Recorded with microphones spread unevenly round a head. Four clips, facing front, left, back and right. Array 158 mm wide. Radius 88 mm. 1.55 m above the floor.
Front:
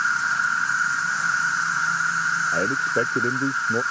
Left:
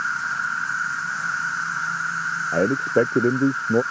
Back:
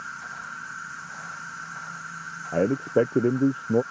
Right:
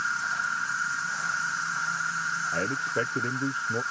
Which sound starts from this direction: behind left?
A man speaking, at 2.5 s.